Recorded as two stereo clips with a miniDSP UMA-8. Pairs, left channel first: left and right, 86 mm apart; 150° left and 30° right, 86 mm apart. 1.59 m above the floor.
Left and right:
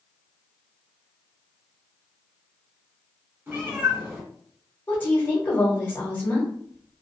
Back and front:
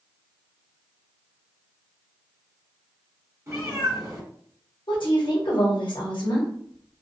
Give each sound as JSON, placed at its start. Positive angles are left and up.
{"t": 3.5, "sound": "a cat meowing", "azimuth_deg": -45, "distance_m": 1.5}
{"t": 4.9, "sound": "a woman speaking", "azimuth_deg": 155, "distance_m": 1.1}